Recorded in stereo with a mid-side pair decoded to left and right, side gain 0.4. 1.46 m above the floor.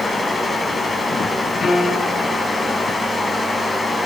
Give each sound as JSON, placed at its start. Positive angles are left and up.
{"t": 0.0, "sound": "a fan", "azimuth_deg": 35, "distance_m": 6.0}
{"t": 1.6, "sound": "a piano", "azimuth_deg": 50, "distance_m": 6.5}